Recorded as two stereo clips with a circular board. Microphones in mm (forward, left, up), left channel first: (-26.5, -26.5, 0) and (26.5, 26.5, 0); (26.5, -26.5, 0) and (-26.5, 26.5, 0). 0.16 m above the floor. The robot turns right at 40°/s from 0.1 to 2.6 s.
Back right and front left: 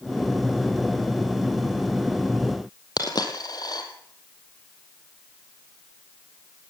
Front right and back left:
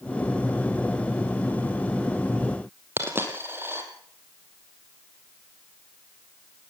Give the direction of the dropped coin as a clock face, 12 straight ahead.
6 o'clock.